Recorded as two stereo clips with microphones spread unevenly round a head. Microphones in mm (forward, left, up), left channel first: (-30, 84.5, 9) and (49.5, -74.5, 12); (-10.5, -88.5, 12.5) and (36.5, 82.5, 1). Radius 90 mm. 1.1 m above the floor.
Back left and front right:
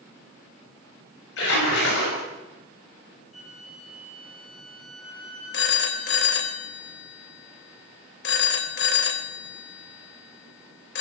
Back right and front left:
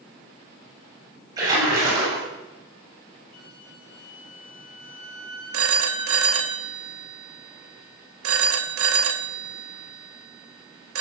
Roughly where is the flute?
Behind right.